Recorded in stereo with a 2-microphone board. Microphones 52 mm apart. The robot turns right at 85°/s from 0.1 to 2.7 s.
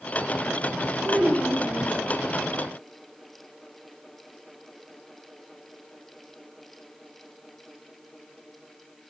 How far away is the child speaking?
About 0.8 m.